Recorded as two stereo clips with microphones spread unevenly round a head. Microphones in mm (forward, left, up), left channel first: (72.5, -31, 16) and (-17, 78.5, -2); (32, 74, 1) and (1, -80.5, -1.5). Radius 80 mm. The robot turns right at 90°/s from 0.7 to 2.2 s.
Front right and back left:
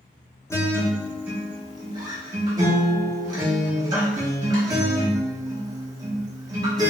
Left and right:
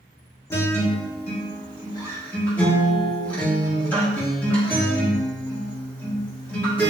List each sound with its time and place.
0.5 s a guitar: 15° left, 0.7 m; by 6.9 s 150° left, 0.7 m